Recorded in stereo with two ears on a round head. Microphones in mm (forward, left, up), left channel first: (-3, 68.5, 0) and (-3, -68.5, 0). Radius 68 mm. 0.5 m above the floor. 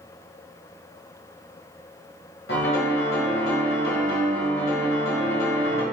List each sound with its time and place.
2.5 s a piano: 75° left (ahead or behind), 1.2 m